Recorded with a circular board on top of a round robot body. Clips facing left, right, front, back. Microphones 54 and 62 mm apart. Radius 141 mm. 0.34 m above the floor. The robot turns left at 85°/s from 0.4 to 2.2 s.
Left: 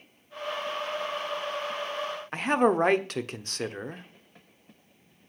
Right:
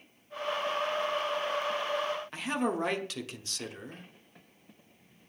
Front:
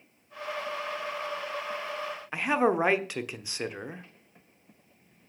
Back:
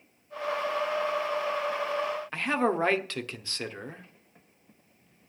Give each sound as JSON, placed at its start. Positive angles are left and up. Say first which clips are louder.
{"t": 2.3, "sound": "a man speaking", "louder": "left 11 dB, front 3 dB", "azimuth_deg": 75, "distance_m": 1.2}